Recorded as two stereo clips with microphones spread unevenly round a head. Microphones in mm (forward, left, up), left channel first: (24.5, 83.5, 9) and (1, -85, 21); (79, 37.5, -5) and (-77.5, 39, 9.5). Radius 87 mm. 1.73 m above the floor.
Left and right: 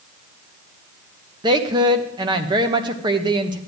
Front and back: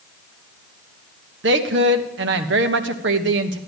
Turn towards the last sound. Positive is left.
turn(degrees=-165)